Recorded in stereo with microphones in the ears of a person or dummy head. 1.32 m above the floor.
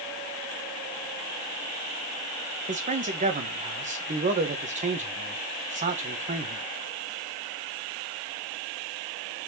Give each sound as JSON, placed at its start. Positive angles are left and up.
{"t": 2.7, "sound": "a man speaking", "side_deg": -40, "distance_m": 1.3}